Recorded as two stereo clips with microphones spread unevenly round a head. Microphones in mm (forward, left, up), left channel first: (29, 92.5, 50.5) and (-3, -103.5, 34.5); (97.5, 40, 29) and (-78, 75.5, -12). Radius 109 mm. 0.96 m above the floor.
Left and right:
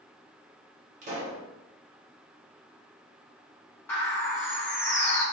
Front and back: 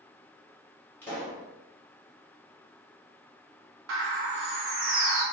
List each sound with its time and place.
1.0 s a pop: 60° right, 0.8 m
3.9 s a bird: 160° left, 0.6 m